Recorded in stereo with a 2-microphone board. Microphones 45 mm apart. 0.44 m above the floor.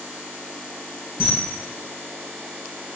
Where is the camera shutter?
15° right (ahead or behind), 2 m.